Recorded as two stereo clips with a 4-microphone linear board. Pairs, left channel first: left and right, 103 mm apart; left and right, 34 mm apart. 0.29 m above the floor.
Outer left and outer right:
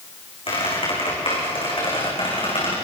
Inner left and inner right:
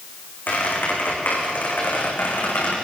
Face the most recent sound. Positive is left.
turn(degrees=65)  # may be behind; listen again after turning